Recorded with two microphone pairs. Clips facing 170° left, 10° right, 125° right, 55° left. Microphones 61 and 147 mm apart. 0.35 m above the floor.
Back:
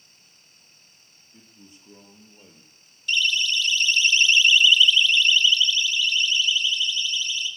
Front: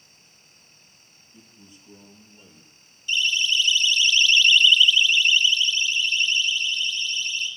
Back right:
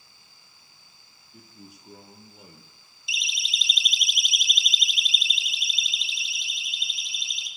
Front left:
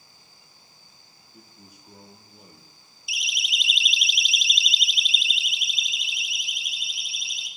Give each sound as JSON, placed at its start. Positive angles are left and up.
{"t": 1.3, "sound": "a man speaking", "azimuth_deg": -140, "distance_m": 9.0}
{"t": 3.1, "sound": "a siren", "azimuth_deg": 165, "distance_m": 2.0}